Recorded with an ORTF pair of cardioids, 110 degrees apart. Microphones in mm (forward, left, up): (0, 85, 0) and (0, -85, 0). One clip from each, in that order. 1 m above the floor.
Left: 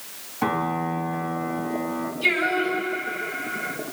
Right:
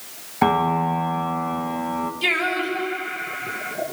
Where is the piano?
55° right, 1.9 m.